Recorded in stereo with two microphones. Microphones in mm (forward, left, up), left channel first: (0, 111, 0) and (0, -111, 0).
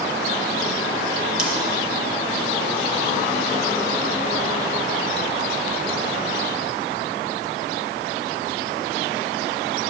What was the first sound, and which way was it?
Scissors, 5° right (ahead or behind).